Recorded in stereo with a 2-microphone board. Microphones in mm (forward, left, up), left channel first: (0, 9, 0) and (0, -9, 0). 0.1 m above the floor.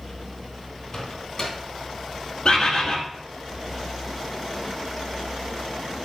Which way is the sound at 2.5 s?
45° left (ahead or behind).